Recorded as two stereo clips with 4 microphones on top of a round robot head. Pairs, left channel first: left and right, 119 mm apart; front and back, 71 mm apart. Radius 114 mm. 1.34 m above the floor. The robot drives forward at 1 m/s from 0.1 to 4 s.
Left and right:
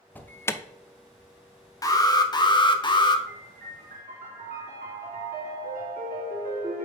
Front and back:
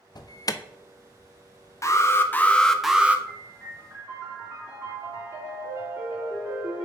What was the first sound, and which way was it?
An alarm, 15° left.